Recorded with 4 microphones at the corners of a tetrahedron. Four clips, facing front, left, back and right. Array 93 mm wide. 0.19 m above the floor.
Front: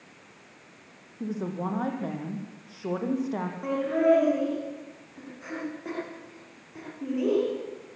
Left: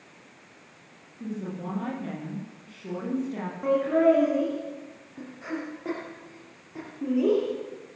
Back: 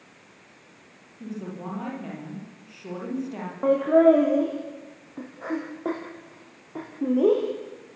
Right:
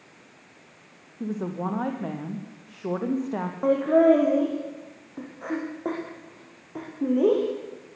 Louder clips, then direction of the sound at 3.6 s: Right 3 dB, back 7 dB; 140° right.